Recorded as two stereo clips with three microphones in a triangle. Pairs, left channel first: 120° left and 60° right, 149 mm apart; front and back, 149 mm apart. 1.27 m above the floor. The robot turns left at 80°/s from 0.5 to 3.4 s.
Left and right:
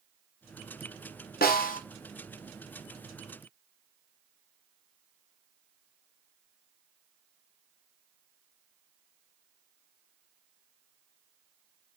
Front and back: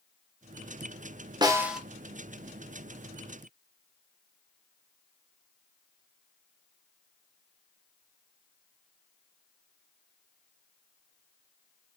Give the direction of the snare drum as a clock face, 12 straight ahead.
8 o'clock.